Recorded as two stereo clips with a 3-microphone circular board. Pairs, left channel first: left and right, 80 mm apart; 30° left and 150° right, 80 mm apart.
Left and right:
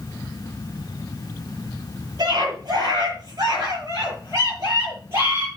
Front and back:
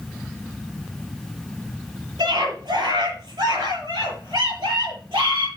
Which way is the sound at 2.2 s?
125° right.